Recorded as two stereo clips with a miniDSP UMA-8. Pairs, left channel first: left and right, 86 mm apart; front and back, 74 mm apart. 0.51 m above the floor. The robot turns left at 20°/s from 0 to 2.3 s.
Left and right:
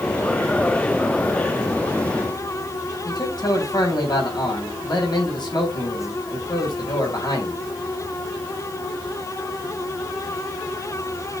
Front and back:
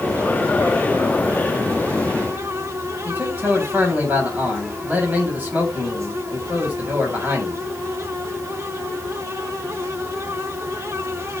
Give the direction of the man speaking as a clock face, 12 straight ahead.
8 o'clock.